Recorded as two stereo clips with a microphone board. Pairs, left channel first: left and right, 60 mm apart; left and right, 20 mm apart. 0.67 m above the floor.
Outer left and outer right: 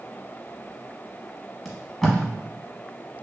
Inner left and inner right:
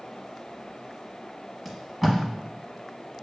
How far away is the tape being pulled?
About 0.9 m.